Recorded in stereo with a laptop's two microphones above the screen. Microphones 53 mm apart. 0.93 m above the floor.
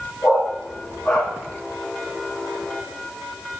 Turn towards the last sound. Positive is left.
turn(degrees=50)  # may be behind; listen again after turning